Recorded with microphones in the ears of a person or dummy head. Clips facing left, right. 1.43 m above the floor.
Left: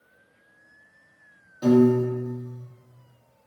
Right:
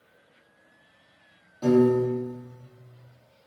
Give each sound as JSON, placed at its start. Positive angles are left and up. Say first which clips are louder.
{"t": 1.6, "sound": "a piano", "louder": "left 2 dB", "side_deg": 15, "distance_m": 0.7}